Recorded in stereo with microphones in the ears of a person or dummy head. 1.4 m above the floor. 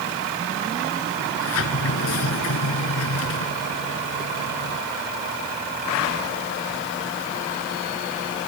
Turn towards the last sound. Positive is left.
turn(degrees=75)  # may be behind; listen again after turning